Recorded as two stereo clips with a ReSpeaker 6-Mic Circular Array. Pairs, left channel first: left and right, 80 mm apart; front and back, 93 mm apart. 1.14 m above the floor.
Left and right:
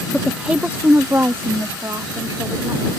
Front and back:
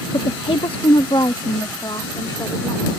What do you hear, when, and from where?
0.1 s a woman speaking: straight ahead; by 3.0 s 45° right